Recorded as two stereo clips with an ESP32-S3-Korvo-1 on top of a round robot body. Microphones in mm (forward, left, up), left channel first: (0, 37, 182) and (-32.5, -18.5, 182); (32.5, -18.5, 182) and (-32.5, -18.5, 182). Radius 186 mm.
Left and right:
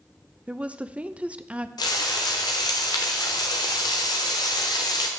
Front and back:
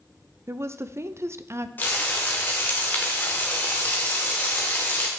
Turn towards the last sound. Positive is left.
turn(degrees=60)